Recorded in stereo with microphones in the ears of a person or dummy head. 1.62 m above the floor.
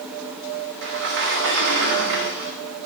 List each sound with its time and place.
0.8 s a sliding door: 55° right (ahead or behind), 0.8 m